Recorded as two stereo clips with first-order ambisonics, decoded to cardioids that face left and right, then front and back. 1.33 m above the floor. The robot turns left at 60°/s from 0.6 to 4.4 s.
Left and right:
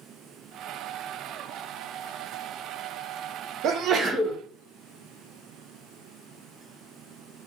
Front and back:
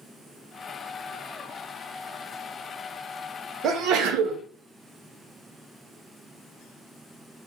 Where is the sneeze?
130° right, 0.7 m; by 4.4 s 175° right, 0.7 m.